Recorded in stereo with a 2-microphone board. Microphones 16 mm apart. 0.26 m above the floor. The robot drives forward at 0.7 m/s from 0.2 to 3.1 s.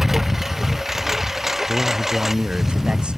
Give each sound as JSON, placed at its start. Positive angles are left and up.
{"t": 0.0, "sound": "a lawn mower", "side_deg": -15}
{"t": 1.7, "sound": "a man speaking", "side_deg": -70}